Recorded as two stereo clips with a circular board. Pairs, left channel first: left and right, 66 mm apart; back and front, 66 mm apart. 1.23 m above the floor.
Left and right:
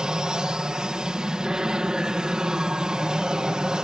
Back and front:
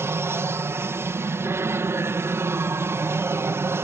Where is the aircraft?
20° right.